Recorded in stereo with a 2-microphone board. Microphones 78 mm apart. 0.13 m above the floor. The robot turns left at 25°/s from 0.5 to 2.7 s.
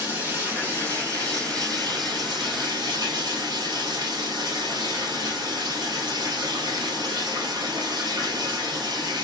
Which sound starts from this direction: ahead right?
Running water, at 0.0 s.